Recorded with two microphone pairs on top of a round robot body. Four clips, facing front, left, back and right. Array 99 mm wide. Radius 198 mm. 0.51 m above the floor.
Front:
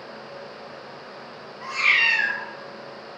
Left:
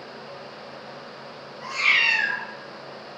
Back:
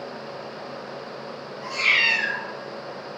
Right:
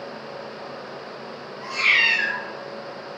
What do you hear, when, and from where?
1.6 s a cat meowing: 10° right, 1.5 m